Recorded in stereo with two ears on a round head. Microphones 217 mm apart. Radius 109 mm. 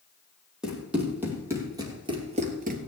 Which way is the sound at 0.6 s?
5° right (ahead or behind).